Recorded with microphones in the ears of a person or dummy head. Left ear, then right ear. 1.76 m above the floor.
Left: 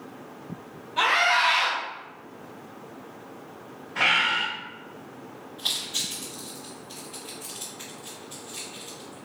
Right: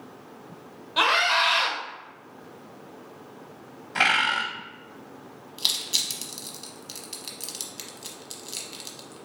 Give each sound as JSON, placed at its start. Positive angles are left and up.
{"t": 1.0, "sound": "a scream", "side_deg": -45, "distance_m": 1.3}
{"t": 4.0, "sound": "a bird", "side_deg": -55, "distance_m": 0.7}
{"t": 5.6, "sound": "crushing", "side_deg": -70, "distance_m": 1.1}